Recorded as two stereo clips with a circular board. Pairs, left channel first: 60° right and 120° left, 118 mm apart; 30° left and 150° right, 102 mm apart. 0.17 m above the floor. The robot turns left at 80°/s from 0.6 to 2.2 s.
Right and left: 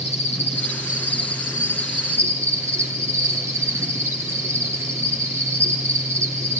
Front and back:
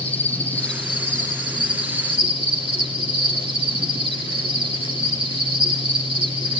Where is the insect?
45° right, 7 m; by 6.6 s 175° right, 7 m.